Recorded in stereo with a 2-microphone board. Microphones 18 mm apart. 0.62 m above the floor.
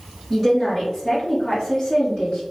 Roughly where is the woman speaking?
Centre.